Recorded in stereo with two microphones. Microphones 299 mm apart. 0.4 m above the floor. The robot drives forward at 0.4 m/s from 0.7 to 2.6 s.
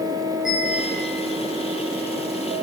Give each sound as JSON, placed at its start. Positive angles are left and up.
{"t": 0.5, "sound": "a bell", "side_deg": -5, "distance_m": 9.0}